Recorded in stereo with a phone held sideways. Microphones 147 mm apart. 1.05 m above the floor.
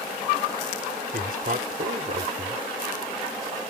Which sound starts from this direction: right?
A man speaking, at 1.1 s.